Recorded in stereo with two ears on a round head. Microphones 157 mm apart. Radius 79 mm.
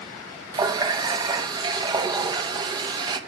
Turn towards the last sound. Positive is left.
turn(degrees=-25)  # may be behind; listen again after turning